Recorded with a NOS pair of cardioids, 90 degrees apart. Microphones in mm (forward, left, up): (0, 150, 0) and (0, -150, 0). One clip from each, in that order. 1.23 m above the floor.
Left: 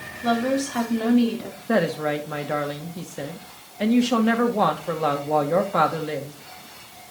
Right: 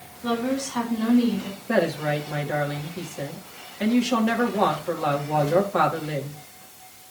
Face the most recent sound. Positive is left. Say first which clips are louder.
# left 1 dB
turn(degrees=25)